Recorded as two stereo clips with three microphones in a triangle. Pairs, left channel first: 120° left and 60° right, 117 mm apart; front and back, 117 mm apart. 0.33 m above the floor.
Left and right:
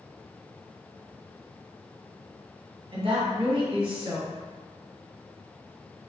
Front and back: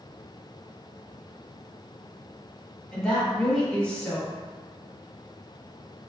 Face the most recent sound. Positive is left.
turn(degrees=-85)